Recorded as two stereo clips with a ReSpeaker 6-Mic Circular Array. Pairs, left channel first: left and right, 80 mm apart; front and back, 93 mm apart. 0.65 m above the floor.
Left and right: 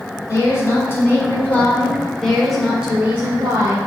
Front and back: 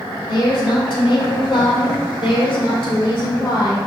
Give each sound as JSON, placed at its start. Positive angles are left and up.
{"t": 0.3, "sound": "a woman speaking", "azimuth_deg": 40, "distance_m": 3.0}